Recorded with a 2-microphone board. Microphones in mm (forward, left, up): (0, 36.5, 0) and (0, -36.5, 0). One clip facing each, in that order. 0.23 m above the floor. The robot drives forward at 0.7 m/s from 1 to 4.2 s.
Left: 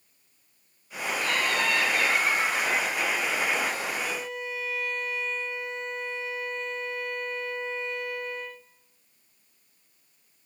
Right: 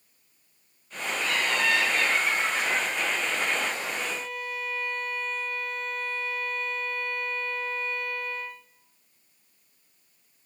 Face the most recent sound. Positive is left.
turn(degrees=20)  # may be behind; listen again after turning